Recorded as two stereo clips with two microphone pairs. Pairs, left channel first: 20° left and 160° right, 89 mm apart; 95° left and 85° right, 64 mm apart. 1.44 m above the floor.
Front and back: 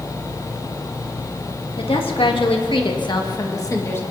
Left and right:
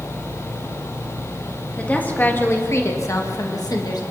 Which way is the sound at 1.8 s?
25° left.